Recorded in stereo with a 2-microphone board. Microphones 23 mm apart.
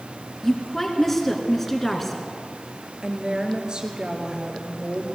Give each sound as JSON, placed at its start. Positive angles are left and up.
{"t": 0.4, "sound": "a woman speaking", "side_deg": 10, "distance_m": 2.5}
{"t": 3.0, "sound": "a woman speaking", "side_deg": -45, "distance_m": 3.5}